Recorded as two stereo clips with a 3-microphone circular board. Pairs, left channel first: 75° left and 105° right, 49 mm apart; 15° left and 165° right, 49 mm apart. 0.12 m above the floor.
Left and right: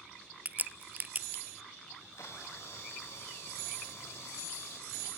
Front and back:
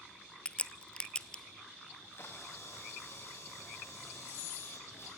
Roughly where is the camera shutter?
Ahead left.